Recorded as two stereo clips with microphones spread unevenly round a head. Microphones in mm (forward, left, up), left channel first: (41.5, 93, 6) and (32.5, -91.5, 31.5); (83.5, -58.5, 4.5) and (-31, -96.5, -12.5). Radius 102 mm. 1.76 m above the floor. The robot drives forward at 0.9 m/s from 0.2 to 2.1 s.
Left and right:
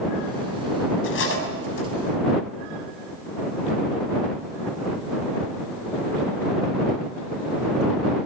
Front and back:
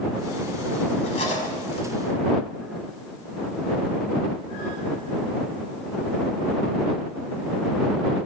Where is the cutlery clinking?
70° left, 7 m; by 1.9 s 75° left, 7 m.